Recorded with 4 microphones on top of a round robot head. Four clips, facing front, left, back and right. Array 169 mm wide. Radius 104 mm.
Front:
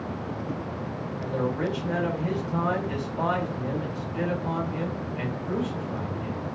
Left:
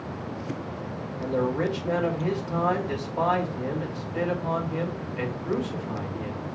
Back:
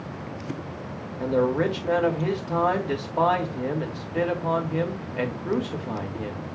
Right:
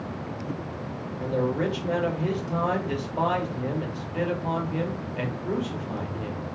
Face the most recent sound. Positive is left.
turn(degrees=-170)